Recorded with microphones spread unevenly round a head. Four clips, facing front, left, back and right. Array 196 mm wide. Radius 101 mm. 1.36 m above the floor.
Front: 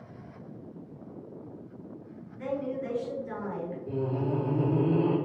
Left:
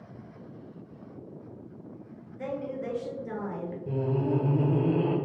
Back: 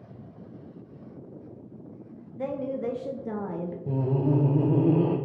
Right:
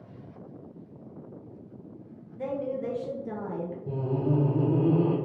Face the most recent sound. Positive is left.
turn(degrees=180)